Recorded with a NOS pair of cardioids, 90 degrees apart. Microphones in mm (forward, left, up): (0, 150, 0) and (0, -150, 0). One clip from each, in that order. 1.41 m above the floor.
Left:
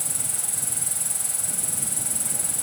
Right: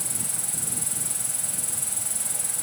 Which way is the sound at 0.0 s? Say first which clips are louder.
Left 1 dB; 15° left.